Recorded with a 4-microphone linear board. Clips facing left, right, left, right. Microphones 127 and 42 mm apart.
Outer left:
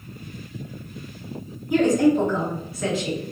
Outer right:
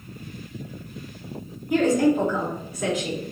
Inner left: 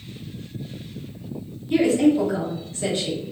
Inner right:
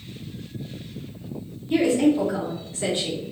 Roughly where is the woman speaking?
Centre.